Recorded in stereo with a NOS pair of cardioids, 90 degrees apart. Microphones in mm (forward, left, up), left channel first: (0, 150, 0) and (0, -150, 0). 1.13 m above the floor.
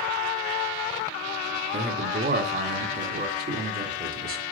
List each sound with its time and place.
1.7 s a man speaking: 35° right, 2.5 m